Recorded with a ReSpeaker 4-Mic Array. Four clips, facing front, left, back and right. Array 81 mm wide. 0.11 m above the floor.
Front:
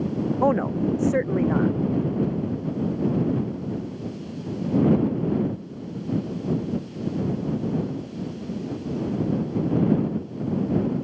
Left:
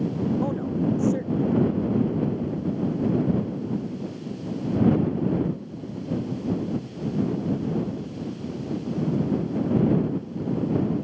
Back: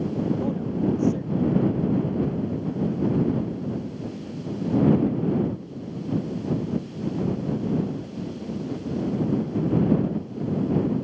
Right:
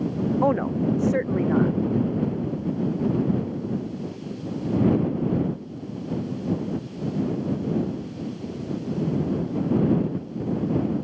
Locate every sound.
0.4 s a woman speaking: 35° right